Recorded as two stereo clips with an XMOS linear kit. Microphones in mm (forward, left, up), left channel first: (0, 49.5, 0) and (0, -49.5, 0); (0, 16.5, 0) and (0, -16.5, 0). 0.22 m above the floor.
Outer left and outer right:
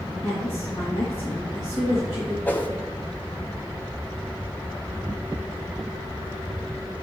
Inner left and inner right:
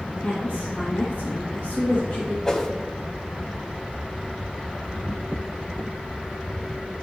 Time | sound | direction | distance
0.2 | a woman speaking | 30° left (ahead or behind) | 4.5 m
2.5 | a whoosh | 20° left (ahead or behind) | 1.2 m